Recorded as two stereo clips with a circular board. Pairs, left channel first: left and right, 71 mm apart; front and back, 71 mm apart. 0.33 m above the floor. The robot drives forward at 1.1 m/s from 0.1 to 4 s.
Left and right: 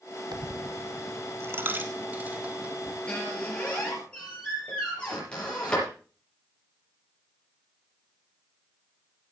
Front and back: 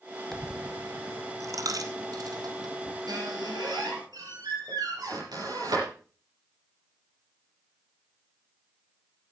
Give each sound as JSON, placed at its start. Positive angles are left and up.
{"t": 0.3, "sound": "a dropped coin", "azimuth_deg": -85, "distance_m": 0.9}
{"t": 3.1, "sound": "a squeak", "azimuth_deg": 165, "distance_m": 5.5}